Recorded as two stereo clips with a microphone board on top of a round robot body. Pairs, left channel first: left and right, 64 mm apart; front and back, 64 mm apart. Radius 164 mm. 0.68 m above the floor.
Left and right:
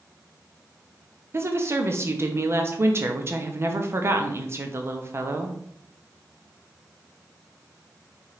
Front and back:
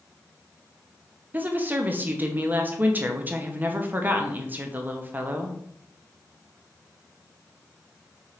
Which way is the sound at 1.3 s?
125° right.